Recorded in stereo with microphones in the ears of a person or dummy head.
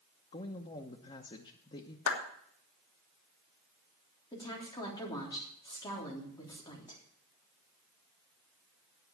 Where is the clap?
75° left (ahead or behind), 1.8 m.